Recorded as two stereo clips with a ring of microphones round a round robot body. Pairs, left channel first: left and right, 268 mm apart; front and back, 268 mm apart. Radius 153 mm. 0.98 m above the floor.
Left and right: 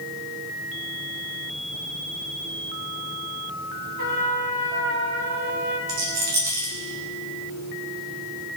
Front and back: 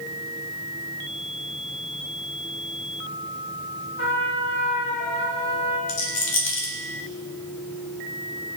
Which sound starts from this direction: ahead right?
A rattle, at 5.9 s.